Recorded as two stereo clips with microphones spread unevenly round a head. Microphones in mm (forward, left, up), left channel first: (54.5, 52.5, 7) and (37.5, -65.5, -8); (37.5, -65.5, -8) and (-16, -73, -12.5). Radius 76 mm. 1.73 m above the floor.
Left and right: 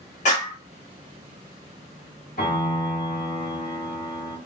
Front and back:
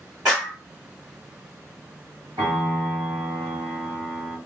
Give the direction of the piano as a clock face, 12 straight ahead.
8 o'clock.